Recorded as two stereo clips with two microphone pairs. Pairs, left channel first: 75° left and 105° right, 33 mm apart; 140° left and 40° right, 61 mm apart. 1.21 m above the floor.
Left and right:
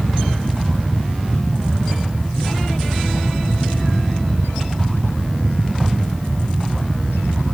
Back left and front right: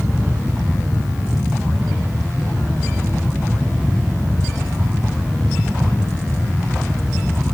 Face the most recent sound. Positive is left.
No sound to turn to.